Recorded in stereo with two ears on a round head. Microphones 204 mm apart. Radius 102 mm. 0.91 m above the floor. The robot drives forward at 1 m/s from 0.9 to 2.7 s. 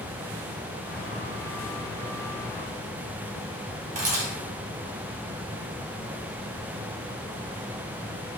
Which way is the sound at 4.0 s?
35° right (ahead or behind).